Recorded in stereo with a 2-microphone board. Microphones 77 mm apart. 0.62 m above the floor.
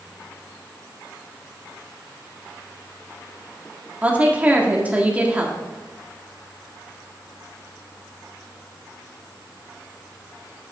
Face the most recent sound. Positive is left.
turn(degrees=-20)  # may be behind; listen again after turning